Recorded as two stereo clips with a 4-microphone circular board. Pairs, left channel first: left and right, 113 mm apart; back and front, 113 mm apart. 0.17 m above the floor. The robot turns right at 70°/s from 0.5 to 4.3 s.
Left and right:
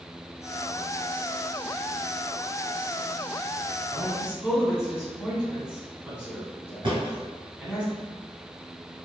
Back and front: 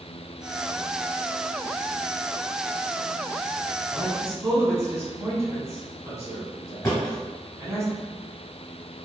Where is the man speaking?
45° right, 1.1 m; by 7.8 s 20° right, 1.1 m.